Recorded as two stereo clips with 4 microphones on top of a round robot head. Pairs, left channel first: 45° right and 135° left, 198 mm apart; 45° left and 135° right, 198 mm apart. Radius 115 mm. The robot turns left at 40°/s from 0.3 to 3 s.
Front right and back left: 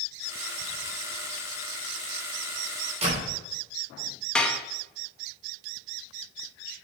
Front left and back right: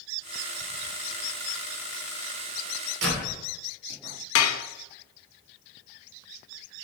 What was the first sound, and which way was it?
A door slam, 165° right.